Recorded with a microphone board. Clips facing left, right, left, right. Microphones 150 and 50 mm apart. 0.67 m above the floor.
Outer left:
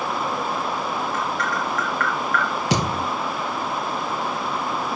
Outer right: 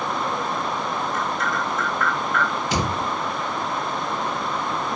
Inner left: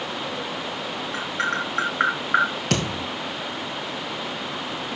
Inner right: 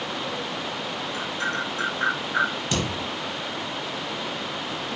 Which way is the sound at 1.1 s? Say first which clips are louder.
Even, inner left 3 dB; 75° left (ahead or behind).